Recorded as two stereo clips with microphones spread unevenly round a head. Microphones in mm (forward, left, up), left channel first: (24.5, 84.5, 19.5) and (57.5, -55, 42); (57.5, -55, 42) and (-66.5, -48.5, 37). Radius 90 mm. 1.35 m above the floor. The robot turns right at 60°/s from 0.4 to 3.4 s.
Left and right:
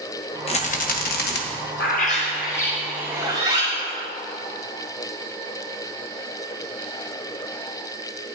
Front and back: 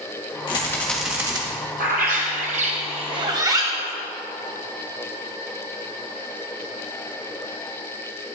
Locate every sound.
0.5 s a rattle: 55° left, 1.5 m; by 1.4 s 115° left, 1.5 m
1.8 s a bird: 135° left, 1.8 m; by 4.0 s 130° right, 1.8 m